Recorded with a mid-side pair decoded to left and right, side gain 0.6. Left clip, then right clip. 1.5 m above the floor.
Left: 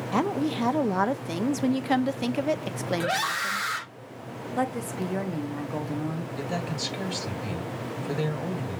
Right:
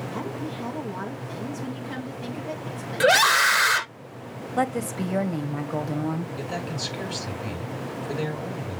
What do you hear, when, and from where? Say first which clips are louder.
0.1 s a woman speaking: left 11 dB; 60° left, 0.9 m
3.0 s a scream: right 11 dB; 45° right, 0.6 m
4.6 s a woman speaking: right 3 dB; 25° right, 1.2 m
6.4 s a man speaking: even; straight ahead, 5.5 m